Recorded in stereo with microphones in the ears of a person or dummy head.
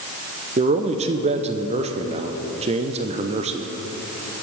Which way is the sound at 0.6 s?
25° right (ahead or behind).